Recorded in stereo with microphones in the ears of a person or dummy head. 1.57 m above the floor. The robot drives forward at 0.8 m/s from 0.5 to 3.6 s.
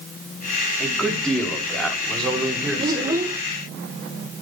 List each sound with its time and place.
0.8 s a man speaking: centre (ahead or behind), 4.5 m
2.8 s a child speaking: 25° right (ahead or behind), 1.1 m; by 3.4 s 20° right (ahead or behind), 1.5 m